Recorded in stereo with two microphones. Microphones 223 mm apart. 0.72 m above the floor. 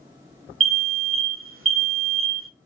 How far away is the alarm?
About 0.7 m.